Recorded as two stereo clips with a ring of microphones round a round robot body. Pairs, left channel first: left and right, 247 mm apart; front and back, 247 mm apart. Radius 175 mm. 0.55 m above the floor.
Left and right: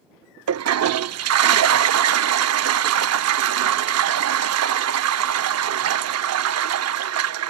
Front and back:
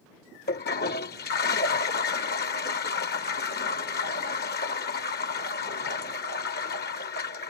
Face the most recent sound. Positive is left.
turn(degrees=-65)